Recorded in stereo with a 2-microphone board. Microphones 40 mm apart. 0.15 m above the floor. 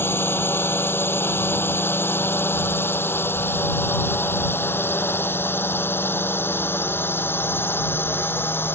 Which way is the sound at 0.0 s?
75° left (ahead or behind).